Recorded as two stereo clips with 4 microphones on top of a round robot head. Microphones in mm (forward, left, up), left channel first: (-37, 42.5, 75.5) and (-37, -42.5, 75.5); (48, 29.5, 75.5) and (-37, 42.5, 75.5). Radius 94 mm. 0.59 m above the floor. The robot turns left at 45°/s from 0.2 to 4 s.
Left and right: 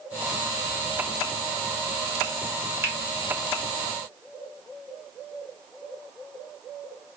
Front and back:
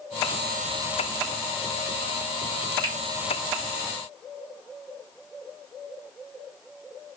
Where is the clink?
No clink in this recording.